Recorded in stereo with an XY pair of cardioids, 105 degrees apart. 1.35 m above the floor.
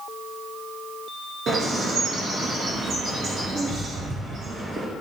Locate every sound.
1.5 s a bird: 55° right, 5 m